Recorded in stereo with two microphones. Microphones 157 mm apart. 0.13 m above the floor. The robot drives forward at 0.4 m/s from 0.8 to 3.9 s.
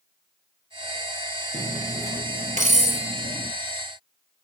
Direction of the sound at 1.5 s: 55° right (ahead or behind).